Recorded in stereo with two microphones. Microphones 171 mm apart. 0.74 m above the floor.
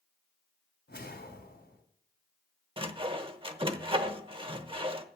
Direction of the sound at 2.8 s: 30° right (ahead or behind).